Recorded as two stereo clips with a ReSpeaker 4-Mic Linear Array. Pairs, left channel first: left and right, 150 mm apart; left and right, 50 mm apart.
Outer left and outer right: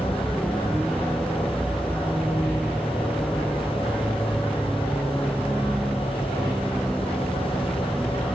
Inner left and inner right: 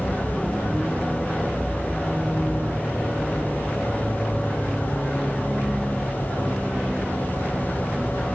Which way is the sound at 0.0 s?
Centre (ahead or behind).